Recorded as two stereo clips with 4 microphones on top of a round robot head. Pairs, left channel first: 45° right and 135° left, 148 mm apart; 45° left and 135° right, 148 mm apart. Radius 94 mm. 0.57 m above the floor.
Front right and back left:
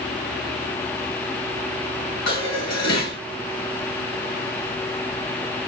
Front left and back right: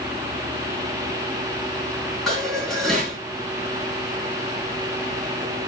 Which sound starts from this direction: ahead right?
Dishes clattering, at 2.3 s.